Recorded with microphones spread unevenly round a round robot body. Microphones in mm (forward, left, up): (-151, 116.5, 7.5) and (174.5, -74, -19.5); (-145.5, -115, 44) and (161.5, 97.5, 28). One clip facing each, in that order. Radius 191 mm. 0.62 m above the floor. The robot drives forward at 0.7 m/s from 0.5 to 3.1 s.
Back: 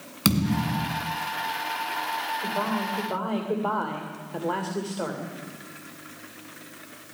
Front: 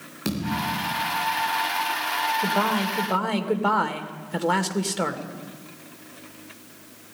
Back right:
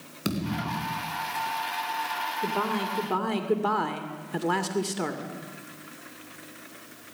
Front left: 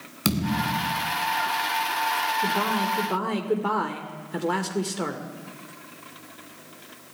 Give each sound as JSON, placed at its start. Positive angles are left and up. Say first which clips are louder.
{"t": 0.2, "sound": "a thud", "louder": "back 4 dB, front left 4 dB", "azimuth_deg": 100, "distance_m": 2.5}
{"t": 2.4, "sound": "a man speaking", "louder": "front 4 dB, front left 1 dB", "azimuth_deg": -50, "distance_m": 2.5}